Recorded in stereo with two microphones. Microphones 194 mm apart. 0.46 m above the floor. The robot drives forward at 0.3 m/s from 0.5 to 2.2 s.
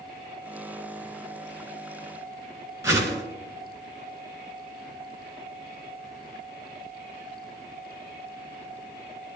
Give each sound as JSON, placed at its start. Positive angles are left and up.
{"t": 2.8, "sound": "a whoosh", "side_deg": -15, "distance_m": 2.5}